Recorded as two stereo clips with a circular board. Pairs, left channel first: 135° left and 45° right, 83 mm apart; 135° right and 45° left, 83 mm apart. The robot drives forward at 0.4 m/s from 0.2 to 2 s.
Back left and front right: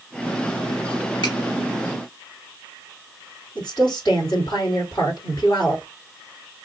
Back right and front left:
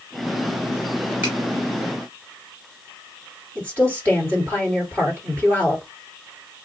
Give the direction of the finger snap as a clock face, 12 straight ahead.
8 o'clock.